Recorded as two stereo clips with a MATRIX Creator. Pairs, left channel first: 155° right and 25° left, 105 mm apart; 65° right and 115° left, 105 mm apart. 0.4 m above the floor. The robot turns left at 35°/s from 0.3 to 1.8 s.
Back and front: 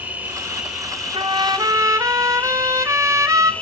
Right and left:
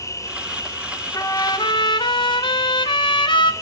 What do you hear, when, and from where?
0.0 s an insect: 40° right, 1.7 m; by 3.6 s 95° right, 1.7 m
1.1 s a trumpet: 10° right, 1.6 m; by 3.5 s 35° right, 1.6 m